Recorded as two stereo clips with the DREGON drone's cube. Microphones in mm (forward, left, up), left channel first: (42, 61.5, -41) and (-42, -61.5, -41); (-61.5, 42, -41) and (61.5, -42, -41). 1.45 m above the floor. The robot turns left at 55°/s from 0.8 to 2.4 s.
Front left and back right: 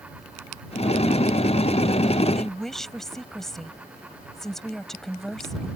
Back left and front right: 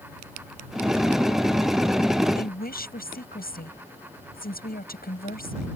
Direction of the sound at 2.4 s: 145° left.